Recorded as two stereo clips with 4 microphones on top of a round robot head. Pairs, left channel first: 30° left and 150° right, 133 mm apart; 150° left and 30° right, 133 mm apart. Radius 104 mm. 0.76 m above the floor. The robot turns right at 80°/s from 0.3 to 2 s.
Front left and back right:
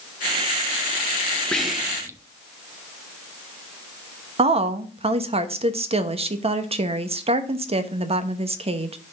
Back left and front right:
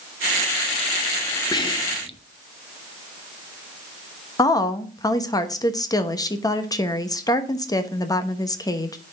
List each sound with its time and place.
1.5 s whispering: 110° left, 1.0 m; by 2.2 s 150° left, 1.0 m
4.4 s a woman speaking: 160° right, 1.1 m